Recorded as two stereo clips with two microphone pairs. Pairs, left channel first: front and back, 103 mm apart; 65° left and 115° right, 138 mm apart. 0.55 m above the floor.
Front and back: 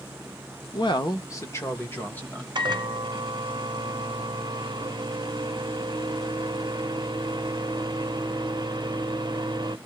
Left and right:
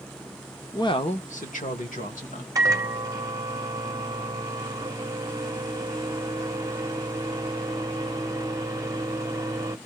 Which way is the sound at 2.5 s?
170° right.